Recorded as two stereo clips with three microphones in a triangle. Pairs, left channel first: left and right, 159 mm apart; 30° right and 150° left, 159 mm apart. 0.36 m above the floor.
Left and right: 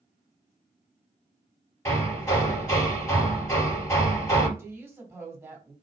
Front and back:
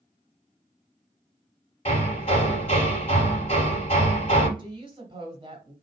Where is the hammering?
15° left, 2.5 m.